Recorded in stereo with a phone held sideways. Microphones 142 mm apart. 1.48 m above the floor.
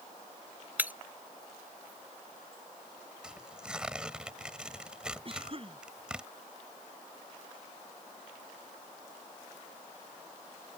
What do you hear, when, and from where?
0.8 s breaking glass: 15° right (ahead or behind)
3.2 s tearing paper: 5° right (ahead or behind)
5.2 s a cough: 40° right (ahead or behind)